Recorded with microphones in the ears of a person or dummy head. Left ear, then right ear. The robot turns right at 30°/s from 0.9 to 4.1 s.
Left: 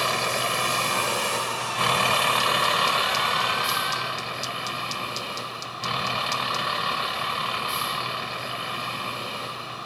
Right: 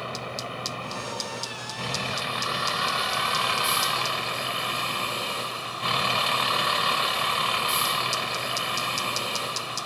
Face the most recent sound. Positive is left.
turn(degrees=-170)